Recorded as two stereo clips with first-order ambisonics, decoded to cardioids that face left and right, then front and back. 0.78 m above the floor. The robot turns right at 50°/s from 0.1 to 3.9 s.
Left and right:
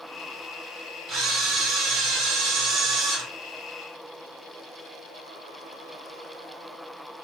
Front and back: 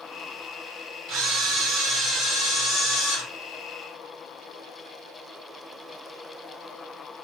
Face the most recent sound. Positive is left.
turn(degrees=0)